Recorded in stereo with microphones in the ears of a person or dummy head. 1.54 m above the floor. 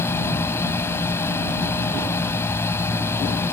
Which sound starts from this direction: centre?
A machine running, at 0.0 s.